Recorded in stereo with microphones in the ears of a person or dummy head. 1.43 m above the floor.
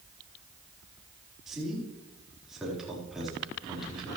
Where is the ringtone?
I don't hear a ringtone.